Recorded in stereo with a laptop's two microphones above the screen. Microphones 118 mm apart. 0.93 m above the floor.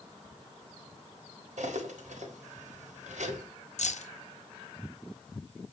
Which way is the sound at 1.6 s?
75° right (ahead or behind).